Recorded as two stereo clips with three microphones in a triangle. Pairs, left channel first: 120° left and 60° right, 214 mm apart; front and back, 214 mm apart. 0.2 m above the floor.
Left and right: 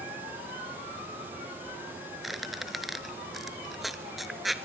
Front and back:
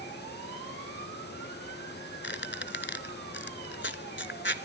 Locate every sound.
2.2 s a squeak: 30° left, 1.0 m